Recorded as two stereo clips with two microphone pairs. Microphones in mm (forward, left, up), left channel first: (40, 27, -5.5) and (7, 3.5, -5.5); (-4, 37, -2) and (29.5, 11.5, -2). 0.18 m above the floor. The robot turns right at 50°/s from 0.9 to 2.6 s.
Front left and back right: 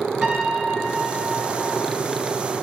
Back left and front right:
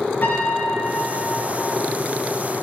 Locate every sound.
0.2 s a piano: 150° left, 2.5 m; by 1.8 s 165° right, 2.5 m